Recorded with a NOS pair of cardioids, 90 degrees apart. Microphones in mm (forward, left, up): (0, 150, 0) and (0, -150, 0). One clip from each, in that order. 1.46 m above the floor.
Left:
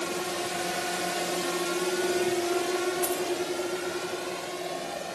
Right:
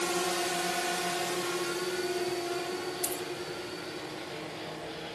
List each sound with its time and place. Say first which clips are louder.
0.0 s a drone: right 1 dB; 25° right; by 5.2 s 75° left
3.0 s a dropped coin: left 6 dB; 5° left